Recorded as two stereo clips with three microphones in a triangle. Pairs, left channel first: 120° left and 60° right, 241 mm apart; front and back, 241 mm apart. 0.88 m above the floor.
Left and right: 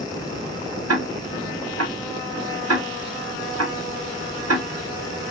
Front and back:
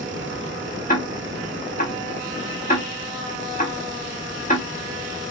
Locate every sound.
0.9 s ticking: 60° right, 0.8 m